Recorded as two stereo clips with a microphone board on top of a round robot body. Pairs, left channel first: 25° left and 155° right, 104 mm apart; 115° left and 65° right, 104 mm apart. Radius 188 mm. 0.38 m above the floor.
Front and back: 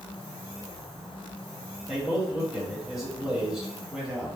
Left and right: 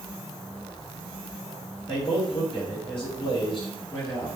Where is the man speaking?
125° left, 2.0 m.